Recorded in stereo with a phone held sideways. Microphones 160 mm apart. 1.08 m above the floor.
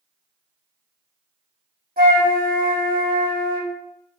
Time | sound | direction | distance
2.0 | a flute | 60° right (ahead or behind) | 1.6 m